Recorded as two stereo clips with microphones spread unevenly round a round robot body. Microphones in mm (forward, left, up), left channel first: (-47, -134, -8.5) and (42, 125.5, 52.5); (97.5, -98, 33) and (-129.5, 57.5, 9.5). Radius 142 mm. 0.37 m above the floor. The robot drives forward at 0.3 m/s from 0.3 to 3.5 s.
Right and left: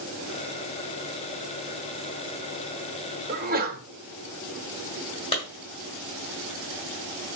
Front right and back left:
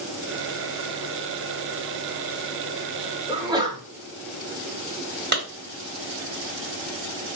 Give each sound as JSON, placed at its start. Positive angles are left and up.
{"t": 3.3, "sound": "a sneeze", "azimuth_deg": 95, "distance_m": 0.8}
{"t": 5.3, "sound": "a clap", "azimuth_deg": -170, "distance_m": 1.8}